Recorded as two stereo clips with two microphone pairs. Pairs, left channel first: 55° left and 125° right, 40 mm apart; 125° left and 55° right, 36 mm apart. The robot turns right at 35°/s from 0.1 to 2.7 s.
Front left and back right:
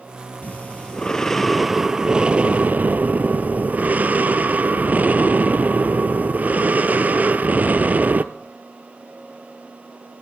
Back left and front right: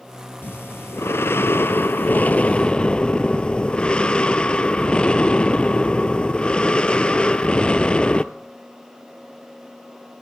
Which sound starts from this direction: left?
Breathing, at 0.4 s.